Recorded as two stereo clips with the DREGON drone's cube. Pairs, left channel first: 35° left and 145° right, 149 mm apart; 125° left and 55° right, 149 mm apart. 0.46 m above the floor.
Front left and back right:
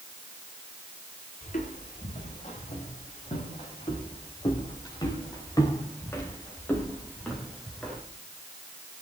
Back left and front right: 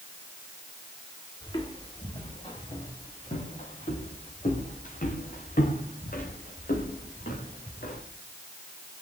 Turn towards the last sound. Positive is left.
turn(degrees=125)